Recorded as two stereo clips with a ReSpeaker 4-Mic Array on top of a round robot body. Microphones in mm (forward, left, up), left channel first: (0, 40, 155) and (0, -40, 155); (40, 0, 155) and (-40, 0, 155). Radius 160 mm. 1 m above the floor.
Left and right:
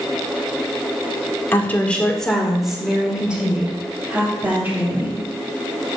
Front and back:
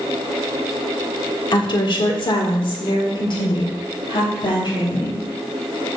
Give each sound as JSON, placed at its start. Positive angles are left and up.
{"t": 1.5, "sound": "a woman speaking", "azimuth_deg": 30, "distance_m": 1.5}